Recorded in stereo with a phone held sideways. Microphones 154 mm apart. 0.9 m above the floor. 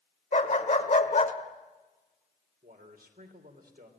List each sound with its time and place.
0.3 s a dog barking: 50° left (ahead or behind), 1.4 m
2.6 s a man speaking: 80° right, 3 m